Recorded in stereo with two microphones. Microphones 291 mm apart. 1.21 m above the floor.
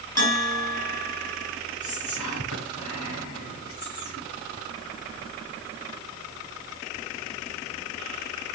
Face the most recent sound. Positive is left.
turn(degrees=90)